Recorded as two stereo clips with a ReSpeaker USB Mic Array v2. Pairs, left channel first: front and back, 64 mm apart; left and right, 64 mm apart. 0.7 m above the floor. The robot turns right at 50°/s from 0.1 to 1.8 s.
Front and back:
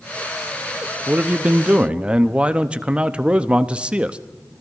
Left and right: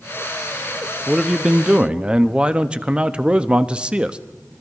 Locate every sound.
1.1 s a man speaking: 170° right, 0.7 m; by 4.2 s 135° right, 0.7 m